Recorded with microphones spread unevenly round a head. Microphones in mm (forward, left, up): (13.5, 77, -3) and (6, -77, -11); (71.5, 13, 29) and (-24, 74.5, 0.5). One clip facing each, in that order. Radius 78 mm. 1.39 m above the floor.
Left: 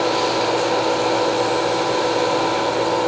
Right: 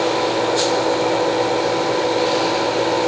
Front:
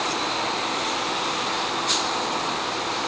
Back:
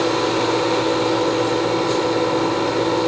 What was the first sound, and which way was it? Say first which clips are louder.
A fan: right 1 dB, back 9 dB; 175° right.